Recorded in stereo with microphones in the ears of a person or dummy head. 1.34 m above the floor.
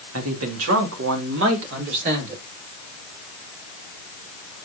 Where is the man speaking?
85° right, 2.5 m; by 2.4 s 55° right (ahead or behind), 4 m.